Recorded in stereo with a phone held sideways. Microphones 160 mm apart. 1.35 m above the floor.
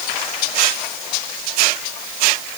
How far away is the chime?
No chime in this recording.